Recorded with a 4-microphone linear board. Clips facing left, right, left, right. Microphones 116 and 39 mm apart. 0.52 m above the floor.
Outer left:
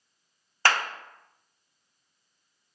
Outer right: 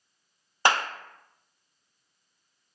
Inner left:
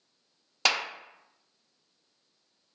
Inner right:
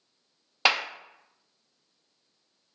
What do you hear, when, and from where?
0.7 s a clap: 20° right (ahead or behind), 0.6 m